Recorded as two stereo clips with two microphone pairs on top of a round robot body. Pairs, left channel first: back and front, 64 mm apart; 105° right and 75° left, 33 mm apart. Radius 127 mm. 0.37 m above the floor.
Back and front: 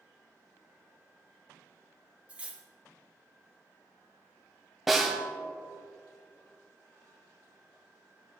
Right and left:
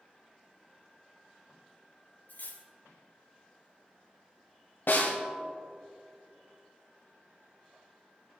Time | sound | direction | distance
2.3 | cutlery clinking | 70° right | 1.1 m
4.9 | a snare drum | 90° right | 1.6 m